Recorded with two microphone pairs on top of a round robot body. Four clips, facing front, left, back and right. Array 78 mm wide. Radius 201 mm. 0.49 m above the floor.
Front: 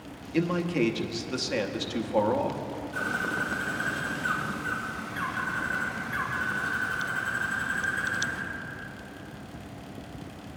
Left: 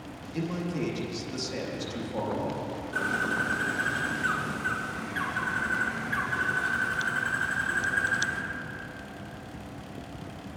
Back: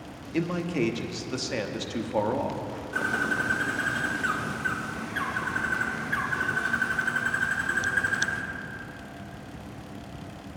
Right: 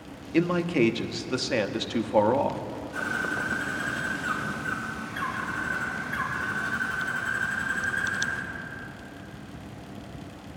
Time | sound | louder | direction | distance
0.3 | a man speaking | right 9 dB, front 1 dB | 100° right | 1.0 m
2.9 | a bird | left 1 dB, back 3 dB | 160° left | 2 m